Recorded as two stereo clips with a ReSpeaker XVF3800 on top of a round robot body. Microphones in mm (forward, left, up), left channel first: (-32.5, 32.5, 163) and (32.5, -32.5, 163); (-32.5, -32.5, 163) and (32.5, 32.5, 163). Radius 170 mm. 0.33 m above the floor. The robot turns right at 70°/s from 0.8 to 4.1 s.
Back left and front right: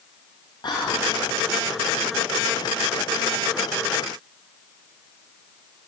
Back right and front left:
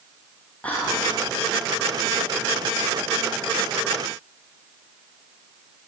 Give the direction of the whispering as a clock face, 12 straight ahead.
7 o'clock.